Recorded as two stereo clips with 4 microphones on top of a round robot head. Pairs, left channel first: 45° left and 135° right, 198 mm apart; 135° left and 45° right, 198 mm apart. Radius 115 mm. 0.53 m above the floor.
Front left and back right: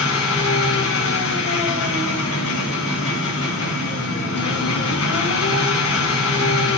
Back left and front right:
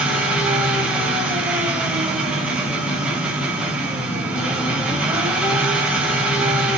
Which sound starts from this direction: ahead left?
An engine running, at 0.0 s.